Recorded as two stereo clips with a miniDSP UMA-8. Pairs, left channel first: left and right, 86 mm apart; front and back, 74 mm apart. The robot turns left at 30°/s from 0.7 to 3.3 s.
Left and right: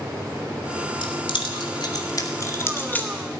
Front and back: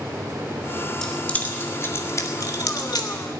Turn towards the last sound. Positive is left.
turn(degrees=10)